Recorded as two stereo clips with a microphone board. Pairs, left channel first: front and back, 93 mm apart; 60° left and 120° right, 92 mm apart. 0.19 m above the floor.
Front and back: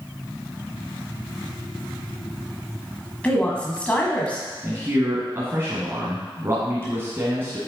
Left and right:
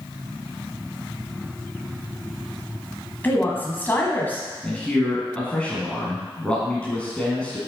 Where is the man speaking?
130° left, 1.9 m.